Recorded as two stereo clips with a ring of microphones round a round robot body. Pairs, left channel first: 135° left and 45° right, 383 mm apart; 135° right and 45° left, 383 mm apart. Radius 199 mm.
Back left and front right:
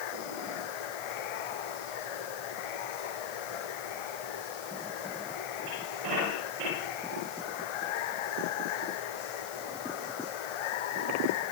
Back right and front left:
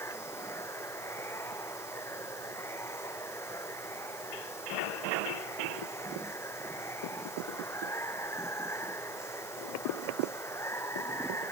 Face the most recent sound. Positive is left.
turn(degrees=140)